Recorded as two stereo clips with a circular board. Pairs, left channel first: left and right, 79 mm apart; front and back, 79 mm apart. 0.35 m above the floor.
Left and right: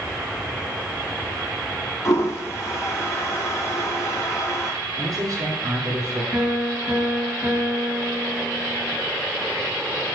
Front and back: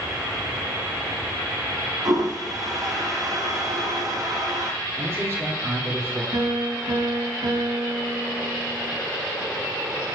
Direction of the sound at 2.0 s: 140° left.